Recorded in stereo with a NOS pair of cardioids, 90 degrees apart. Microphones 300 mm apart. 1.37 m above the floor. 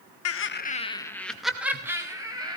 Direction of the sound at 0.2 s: 55° left.